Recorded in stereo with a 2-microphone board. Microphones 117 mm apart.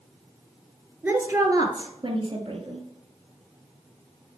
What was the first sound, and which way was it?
A woman speaking, 15° right (ahead or behind).